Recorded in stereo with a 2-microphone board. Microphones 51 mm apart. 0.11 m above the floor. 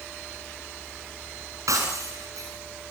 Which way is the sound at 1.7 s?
80° right.